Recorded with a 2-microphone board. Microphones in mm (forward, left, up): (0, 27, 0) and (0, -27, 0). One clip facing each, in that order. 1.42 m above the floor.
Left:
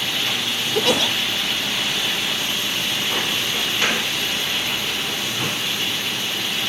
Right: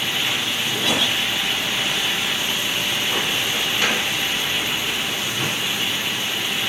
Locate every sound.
0.8 s a giggle: 60° left (ahead or behind), 0.6 m